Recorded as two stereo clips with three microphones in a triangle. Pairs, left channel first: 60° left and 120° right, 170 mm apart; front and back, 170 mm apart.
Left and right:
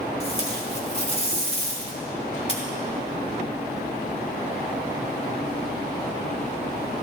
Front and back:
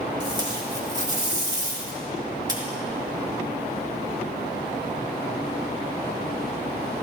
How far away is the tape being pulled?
About 2.5 m.